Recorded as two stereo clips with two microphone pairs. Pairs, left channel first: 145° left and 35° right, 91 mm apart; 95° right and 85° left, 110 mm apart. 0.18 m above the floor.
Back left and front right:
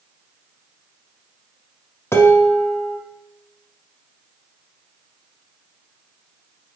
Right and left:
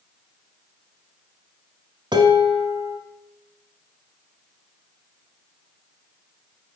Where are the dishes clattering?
95° left, 0.9 m.